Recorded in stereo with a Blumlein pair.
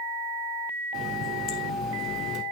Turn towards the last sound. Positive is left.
turn(degrees=30)